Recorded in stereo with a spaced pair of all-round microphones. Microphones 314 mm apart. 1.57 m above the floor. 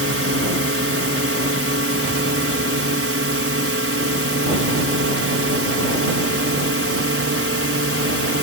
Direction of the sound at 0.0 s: 40° right (ahead or behind).